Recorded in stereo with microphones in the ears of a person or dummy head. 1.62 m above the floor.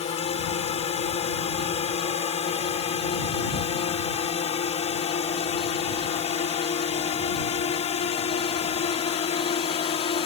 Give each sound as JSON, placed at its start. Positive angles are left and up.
{"t": 0.0, "sound": "a drone", "side_deg": 35}